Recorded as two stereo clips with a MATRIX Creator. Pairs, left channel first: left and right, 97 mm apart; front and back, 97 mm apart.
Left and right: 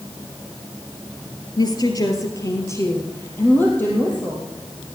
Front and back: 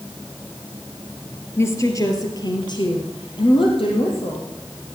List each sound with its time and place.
1.6 s a woman speaking: 60° left, 2 m; by 4.5 s 15° left, 4 m